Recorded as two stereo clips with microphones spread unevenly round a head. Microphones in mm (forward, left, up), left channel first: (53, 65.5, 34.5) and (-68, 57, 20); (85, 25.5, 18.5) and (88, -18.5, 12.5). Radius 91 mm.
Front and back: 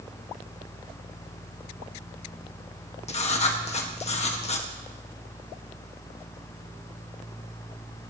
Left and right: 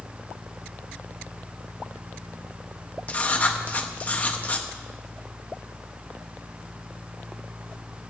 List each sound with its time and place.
3.1 s writing: 35° left, 1.7 m